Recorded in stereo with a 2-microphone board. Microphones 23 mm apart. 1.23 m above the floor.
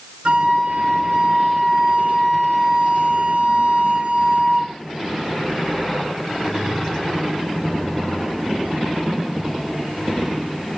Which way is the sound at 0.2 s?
50° right (ahead or behind).